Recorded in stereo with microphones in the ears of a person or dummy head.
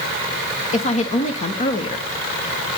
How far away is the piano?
No piano in this recording.